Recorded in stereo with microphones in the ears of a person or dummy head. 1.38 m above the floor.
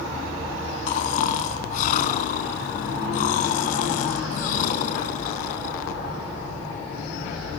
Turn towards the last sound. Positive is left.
turn(degrees=50)  # may be behind; listen again after turning